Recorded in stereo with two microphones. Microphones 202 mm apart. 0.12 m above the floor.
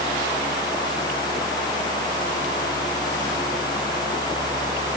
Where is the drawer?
No drawer in this recording.